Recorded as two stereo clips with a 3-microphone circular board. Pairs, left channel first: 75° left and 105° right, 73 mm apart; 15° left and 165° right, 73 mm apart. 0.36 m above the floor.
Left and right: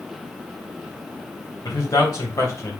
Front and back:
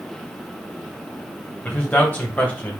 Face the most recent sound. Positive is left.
turn(degrees=70)